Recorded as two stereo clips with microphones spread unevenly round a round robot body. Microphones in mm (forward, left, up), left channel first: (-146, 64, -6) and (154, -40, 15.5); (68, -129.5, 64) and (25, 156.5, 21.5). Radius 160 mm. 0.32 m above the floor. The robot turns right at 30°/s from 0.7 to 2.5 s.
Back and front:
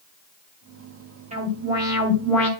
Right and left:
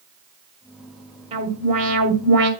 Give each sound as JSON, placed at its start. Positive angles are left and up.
{"t": 1.3, "sound": "an alarm", "azimuth_deg": 45, "distance_m": 2.0}